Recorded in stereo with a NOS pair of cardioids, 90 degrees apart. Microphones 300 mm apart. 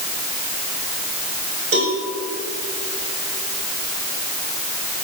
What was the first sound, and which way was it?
A cowbell, 50° right.